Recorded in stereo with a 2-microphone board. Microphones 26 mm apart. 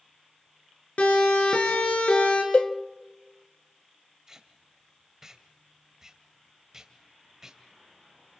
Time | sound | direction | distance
1.0 | a siren | 65° left (ahead or behind) | 3.5 m
2.5 | a cowbell | 60° left (ahead or behind) | 0.5 m
4.3 | tape being pulled | 20° right (ahead or behind) | 1.9 m